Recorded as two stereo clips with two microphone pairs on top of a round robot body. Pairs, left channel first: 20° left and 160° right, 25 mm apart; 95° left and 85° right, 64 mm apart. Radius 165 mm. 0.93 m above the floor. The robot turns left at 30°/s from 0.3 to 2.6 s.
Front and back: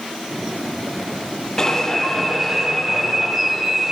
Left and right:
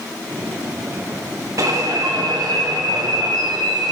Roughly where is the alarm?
Ahead right.